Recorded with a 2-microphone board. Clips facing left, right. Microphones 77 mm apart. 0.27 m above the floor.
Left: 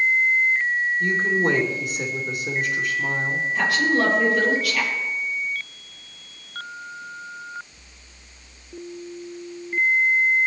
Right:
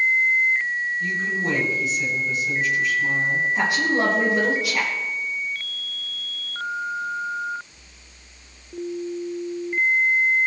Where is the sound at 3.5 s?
20° right (ahead or behind), 7 m.